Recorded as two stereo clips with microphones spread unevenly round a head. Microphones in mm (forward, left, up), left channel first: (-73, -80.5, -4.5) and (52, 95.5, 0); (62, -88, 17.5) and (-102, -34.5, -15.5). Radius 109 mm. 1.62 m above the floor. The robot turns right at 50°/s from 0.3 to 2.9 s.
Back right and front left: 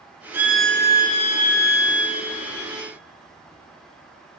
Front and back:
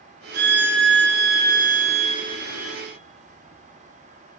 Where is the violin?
130° left, 1.1 m; by 2.8 s 105° right, 1.1 m.